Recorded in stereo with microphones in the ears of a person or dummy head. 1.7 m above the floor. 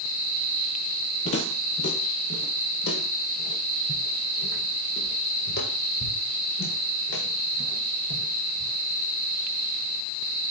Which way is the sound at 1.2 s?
35° left (ahead or behind).